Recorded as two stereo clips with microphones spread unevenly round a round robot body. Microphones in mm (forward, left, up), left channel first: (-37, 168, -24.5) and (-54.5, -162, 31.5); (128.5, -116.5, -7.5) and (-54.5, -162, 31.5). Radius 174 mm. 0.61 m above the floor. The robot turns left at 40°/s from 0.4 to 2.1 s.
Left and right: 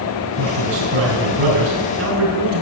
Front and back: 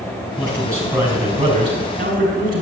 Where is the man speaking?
55° right, 4.5 m; by 2.6 s 120° right, 4.5 m.